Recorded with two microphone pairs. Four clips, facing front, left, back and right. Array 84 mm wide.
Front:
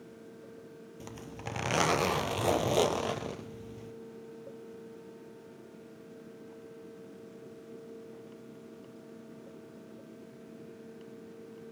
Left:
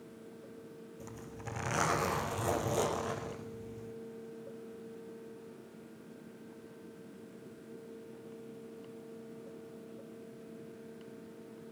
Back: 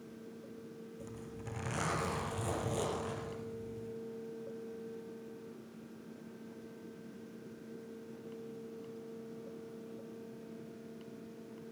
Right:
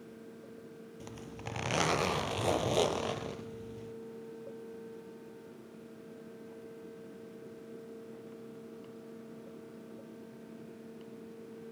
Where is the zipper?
25° right, 1.5 m.